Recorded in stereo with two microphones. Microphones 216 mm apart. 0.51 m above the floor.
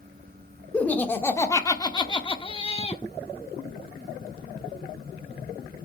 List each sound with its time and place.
0.7 s laughter: 5° left (ahead or behind), 1.4 m; by 3.0 s 25° left (ahead or behind), 1.2 m